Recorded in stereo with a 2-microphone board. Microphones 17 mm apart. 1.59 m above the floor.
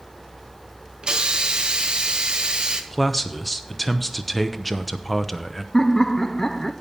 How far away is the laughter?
About 0.6 m.